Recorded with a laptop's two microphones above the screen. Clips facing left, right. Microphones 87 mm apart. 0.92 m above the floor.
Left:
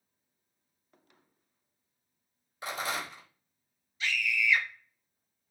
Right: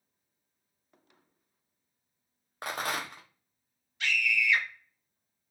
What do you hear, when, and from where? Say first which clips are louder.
2.6 s a rattle: right 1 dB; 55° right (ahead or behind), 0.6 m
4.0 s a scream: right 1 dB; 60° right (ahead or behind), 1.1 m